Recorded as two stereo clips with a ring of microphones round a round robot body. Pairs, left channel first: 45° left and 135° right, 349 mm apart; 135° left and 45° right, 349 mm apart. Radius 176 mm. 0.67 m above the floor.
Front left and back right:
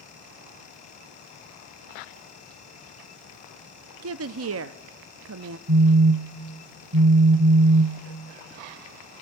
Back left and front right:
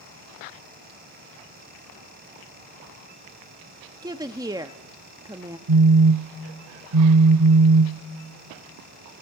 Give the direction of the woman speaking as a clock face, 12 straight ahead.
4 o'clock.